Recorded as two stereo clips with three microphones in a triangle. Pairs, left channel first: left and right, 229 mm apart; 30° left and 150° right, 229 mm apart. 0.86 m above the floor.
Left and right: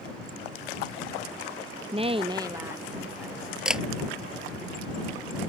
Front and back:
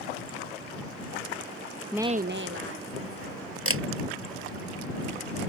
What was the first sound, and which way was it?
A woman speaking, 55° right.